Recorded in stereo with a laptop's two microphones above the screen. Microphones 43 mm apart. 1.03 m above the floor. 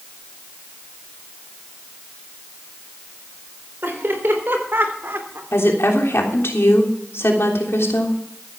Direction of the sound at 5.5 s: 80° left.